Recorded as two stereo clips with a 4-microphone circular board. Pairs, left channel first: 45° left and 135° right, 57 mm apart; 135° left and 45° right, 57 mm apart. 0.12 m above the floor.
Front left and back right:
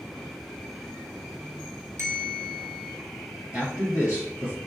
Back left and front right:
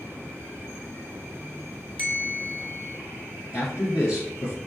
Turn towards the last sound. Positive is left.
turn(degrees=160)